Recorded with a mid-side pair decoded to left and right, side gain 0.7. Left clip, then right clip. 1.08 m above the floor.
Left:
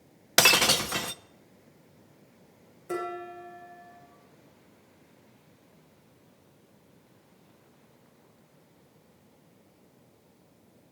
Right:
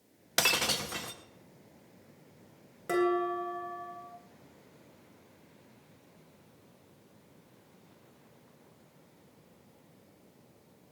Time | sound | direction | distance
0.4 | breaking glass | 35° left | 0.8 m
2.9 | dishes clattering | 55° right | 10 m